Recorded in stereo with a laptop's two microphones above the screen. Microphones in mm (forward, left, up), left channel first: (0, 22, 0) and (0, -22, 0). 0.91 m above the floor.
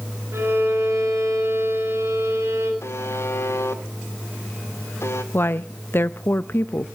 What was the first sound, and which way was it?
A violin, 85° right.